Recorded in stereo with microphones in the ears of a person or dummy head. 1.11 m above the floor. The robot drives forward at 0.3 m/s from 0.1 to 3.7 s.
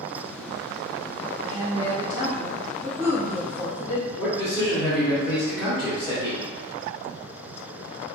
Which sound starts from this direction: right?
A woman speaking, at 1.4 s.